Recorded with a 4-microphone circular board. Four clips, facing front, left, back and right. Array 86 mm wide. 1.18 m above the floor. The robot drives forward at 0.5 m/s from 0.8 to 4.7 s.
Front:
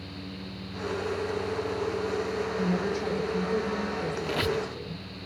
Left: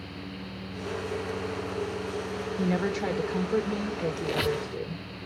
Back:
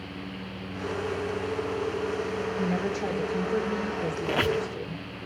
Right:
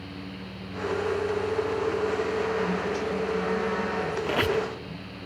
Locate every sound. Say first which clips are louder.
2.6 s a woman speaking: even, even; 95° left, 3 m; by 5.0 s 115° left, 3.5 m
4.2 s a squeak: right 4 dB, back 4 dB; 130° right, 0.7 m; by 4.7 s 150° right, 0.8 m